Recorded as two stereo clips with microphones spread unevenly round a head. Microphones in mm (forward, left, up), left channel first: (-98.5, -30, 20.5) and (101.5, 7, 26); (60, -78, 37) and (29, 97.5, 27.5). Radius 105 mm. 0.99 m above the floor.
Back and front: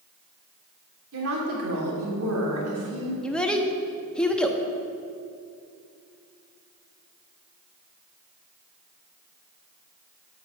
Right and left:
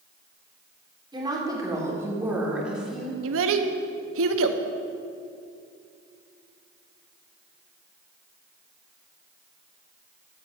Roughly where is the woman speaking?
Ahead left.